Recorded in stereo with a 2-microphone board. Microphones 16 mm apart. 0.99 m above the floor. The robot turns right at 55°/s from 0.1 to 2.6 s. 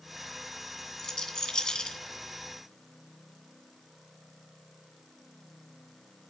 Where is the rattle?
40° left (ahead or behind), 2.5 m; by 2.0 s 70° left (ahead or behind), 2.5 m.